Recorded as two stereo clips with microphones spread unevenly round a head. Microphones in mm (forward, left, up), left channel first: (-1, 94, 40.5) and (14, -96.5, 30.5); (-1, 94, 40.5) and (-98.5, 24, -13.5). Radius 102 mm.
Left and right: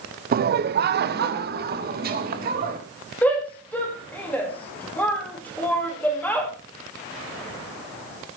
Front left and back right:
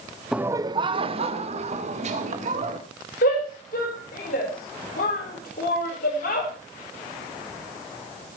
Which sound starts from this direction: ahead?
A shout, at 3.2 s.